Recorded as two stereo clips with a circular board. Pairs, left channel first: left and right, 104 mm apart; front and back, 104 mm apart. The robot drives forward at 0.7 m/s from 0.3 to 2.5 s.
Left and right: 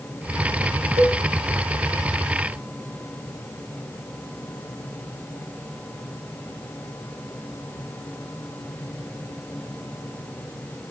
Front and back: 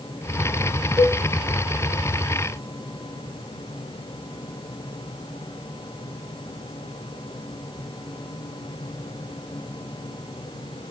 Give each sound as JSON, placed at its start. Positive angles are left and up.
{"t": 1.0, "sound": "a cowbell", "azimuth_deg": -80, "distance_m": 0.7}